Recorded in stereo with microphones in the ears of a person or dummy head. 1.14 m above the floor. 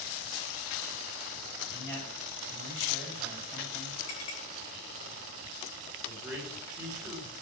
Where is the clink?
75° left (ahead or behind), 8 m.